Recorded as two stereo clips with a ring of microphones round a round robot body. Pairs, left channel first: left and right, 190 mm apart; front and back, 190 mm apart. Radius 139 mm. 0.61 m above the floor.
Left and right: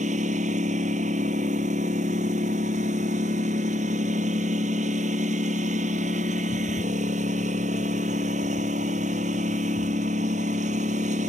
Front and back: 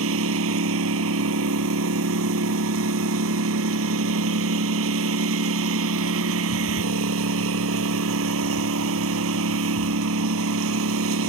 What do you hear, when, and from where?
0.0 s a lawn mower: 155° right